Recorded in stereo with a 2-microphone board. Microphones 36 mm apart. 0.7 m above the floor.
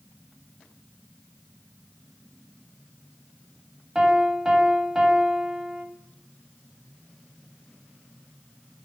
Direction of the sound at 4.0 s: 15° right (ahead or behind).